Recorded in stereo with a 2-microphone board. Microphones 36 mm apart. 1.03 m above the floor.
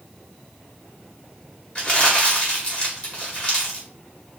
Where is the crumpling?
30° left (ahead or behind), 1.6 m.